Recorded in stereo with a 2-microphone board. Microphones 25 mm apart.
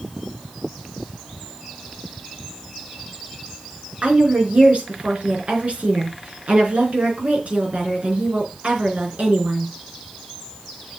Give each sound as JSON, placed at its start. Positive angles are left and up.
{"t": 4.0, "sound": "a woman speaking", "side_deg": -60, "distance_m": 4.5}